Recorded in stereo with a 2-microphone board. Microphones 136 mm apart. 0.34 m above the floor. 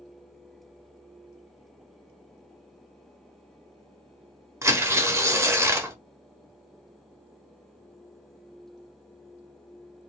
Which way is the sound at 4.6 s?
20° right (ahead or behind).